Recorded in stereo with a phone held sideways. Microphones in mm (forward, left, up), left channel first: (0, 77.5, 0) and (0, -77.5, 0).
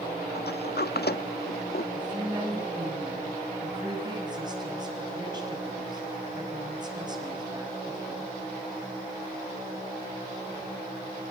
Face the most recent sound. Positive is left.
turn(degrees=-25)  # may be behind; listen again after turning